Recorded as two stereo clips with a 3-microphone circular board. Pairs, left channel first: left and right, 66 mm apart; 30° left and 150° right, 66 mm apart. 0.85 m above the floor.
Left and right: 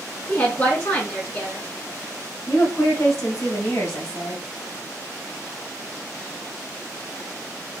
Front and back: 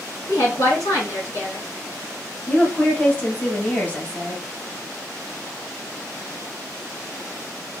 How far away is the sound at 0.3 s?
About 1.7 m.